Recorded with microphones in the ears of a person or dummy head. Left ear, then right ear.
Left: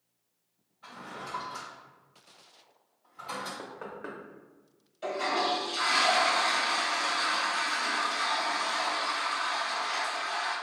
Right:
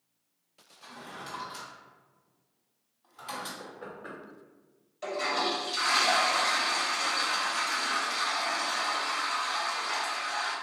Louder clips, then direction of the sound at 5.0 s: Left 1 dB; 5° right (ahead or behind).